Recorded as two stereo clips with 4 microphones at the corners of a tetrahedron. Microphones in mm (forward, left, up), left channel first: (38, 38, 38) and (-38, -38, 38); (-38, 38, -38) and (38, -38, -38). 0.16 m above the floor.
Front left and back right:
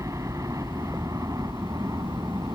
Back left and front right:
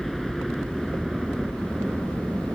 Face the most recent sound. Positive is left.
turn(degrees=-130)